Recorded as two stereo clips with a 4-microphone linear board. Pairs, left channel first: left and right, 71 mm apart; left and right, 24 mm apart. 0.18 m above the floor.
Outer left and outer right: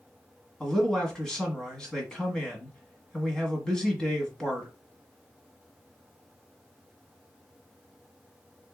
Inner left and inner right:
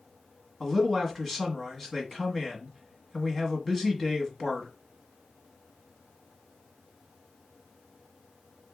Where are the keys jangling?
No keys jangling in this recording.